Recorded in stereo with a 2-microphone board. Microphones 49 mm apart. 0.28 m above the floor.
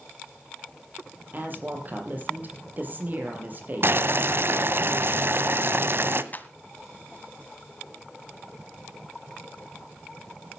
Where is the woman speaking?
45° right (ahead or behind), 7 m.